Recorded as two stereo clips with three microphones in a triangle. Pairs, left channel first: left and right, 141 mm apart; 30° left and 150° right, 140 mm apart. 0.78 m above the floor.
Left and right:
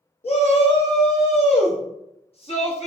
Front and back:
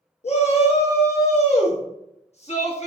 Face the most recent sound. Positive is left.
turn(degrees=55)